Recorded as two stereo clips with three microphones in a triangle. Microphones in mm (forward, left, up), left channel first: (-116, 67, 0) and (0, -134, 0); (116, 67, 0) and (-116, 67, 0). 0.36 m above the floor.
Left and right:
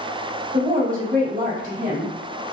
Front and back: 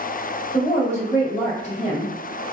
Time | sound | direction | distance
0.5 | a woman speaking | 40° right | 1.8 m